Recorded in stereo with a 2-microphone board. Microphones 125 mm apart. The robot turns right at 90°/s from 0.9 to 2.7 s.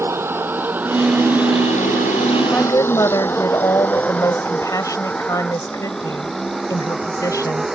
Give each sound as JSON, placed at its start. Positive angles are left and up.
{"t": 0.0, "sound": "a vehicle", "side_deg": -20}
{"t": 2.5, "sound": "a woman speaking", "side_deg": 10}